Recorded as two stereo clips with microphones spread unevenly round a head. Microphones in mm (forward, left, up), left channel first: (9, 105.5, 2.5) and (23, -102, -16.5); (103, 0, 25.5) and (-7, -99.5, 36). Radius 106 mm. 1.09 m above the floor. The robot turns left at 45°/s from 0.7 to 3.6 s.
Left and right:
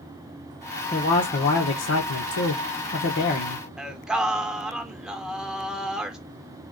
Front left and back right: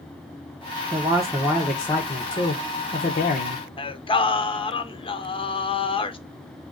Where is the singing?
5° right, 0.7 m.